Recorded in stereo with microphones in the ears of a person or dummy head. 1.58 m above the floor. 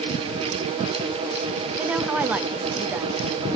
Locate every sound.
1.8 s a woman speaking: 10° right (ahead or behind), 0.5 m